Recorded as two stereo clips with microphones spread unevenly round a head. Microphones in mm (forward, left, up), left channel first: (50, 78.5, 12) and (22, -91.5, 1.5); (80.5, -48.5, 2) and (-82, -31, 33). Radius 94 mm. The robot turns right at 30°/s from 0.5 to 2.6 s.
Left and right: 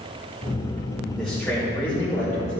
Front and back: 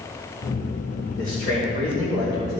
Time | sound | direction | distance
1.2 | a man speaking | 15° right | 3.5 m